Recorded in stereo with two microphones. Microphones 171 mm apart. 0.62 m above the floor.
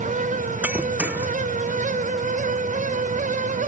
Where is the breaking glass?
10° right (ahead or behind).